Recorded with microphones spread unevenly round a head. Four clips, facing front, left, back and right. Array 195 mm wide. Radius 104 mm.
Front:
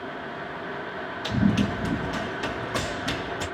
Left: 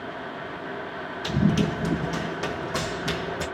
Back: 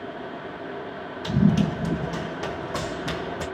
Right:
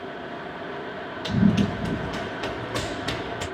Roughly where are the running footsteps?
Behind.